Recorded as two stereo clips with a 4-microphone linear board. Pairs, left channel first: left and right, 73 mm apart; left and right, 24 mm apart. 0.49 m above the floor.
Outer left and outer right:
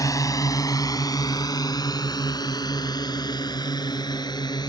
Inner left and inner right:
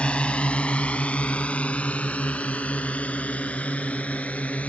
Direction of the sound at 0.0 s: 50° left (ahead or behind).